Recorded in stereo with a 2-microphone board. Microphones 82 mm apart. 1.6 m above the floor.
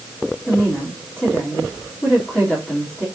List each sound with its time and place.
0.5 s a woman speaking: 10° left (ahead or behind), 3.5 m